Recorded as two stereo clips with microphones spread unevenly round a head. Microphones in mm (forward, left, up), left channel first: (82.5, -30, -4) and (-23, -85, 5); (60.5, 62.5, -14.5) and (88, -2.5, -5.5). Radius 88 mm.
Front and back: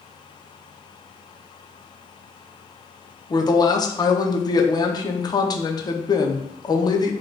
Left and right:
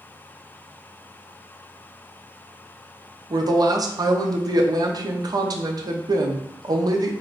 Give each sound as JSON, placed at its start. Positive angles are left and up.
{"t": 3.3, "sound": "a woman speaking", "azimuth_deg": -30, "distance_m": 0.6}